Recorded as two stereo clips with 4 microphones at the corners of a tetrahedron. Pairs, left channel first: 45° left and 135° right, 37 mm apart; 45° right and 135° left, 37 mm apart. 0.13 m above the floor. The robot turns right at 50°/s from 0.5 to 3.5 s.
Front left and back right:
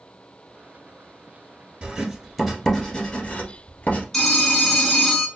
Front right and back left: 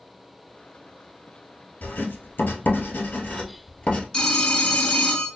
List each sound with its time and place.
1.8 s writing: 70° right, 1.2 m; by 4.0 s 15° left, 1.2 m
4.1 s a phone ringing: 15° right, 0.7 m